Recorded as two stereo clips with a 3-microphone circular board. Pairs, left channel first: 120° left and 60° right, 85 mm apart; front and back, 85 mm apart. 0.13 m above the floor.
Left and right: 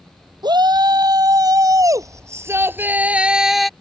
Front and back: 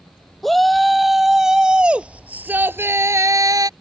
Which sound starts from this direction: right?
A shout, at 0.4 s.